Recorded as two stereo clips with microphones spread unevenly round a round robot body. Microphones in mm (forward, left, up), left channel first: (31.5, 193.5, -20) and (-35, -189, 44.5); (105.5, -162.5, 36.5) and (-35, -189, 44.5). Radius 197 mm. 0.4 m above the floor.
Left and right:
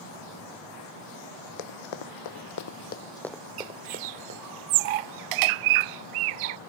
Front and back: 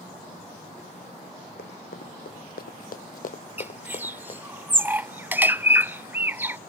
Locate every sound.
1.6 s running footsteps: 65° left; by 4.4 s 45° right
3.6 s a bird: 90° right